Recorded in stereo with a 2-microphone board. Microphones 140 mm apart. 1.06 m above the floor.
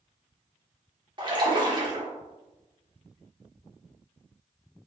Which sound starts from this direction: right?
A splash, at 1.2 s.